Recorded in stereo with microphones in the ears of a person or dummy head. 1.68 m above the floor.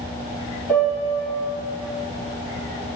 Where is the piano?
10° left (ahead or behind), 1.9 m.